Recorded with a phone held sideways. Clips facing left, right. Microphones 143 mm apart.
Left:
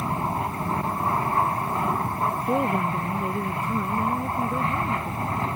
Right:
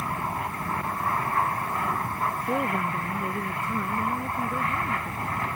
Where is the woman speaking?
15° left (ahead or behind).